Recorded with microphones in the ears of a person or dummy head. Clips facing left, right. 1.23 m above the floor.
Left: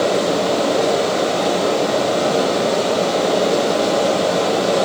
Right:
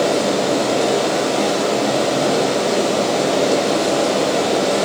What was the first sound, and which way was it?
Running water, 75° right (ahead or behind).